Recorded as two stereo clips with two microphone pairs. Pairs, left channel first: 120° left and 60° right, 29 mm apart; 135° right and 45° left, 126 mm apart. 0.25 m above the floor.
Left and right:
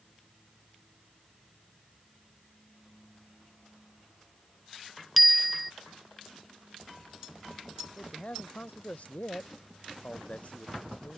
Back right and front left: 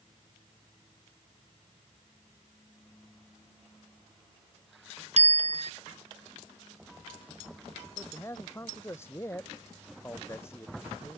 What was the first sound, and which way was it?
A bicycle bell, 30° left.